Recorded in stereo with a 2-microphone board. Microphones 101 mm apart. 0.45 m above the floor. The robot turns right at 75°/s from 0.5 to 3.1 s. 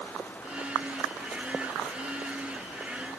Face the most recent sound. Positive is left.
No sound to turn to.